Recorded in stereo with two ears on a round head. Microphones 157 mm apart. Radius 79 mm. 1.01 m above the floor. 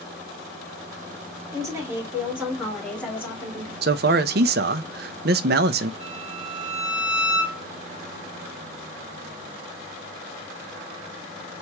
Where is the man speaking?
60° right (ahead or behind), 0.5 m.